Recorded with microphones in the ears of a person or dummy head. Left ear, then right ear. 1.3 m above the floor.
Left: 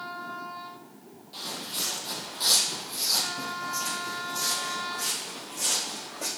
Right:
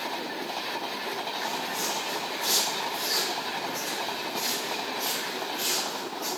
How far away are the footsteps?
About 2 m.